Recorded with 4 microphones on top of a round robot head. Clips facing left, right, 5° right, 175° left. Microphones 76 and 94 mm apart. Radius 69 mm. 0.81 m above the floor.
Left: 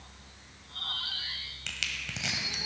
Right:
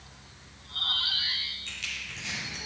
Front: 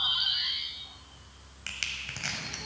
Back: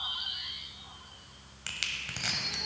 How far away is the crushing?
About 1.3 m.